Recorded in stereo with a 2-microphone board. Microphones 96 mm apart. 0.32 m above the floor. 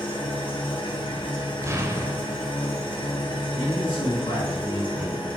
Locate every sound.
0.0 s an engine running: 55° left (ahead or behind), 1.9 m
1.6 s an explosion: 30° right (ahead or behind), 0.8 m
3.5 s a man speaking: 65° left (ahead or behind), 2.5 m